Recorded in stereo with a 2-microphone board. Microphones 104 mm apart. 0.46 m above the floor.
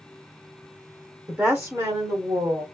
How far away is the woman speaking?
About 0.9 m.